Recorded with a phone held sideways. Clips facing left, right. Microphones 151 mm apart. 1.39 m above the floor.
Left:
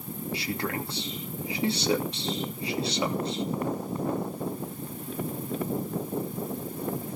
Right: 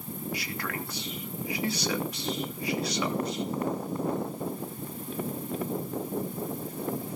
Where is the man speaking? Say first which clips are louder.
Left 8 dB; 30° left (ahead or behind), 2.5 m.